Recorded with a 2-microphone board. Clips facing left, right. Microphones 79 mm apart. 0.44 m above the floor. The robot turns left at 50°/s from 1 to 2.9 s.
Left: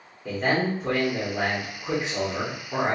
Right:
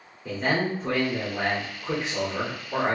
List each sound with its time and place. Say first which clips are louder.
0.2 s a man speaking: left 1 dB; 5° left (ahead or behind), 1.4 m; by 3.0 s 20° left (ahead or behind), 1.4 m